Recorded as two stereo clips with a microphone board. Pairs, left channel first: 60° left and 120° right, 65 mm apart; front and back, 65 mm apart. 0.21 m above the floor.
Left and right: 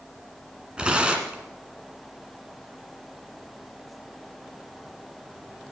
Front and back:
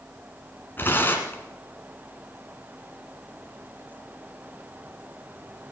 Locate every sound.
0.8 s tearing paper: 50° right, 1.9 m